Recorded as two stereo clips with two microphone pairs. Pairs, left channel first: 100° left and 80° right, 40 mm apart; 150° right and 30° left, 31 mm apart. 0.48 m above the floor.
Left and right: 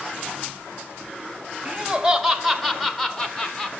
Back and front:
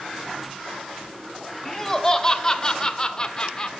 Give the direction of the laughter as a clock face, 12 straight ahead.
3 o'clock.